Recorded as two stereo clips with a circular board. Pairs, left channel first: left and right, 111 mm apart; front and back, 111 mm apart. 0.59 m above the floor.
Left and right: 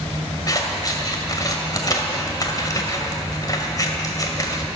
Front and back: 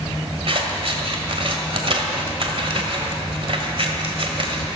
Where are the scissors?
145° left, 1.8 m.